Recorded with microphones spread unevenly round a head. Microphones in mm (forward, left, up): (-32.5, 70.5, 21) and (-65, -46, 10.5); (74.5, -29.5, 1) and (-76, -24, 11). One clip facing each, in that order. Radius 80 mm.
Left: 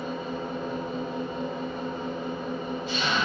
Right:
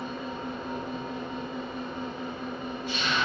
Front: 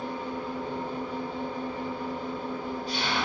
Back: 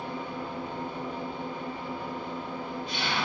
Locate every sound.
0.0 s an engine running: 55° left, 4 m